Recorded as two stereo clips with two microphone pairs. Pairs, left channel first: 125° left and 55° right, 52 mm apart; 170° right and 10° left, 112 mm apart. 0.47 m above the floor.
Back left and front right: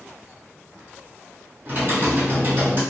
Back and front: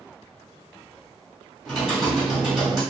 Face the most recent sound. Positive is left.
turn(degrees=-80)